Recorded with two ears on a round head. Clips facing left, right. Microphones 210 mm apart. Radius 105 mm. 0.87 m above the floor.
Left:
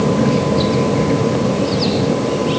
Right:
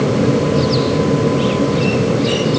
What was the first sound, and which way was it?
Only background noise.